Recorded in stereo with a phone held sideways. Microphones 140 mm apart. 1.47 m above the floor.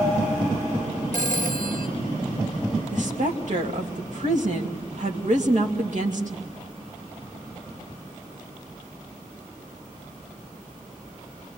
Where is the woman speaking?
60° right (ahead or behind), 3 m.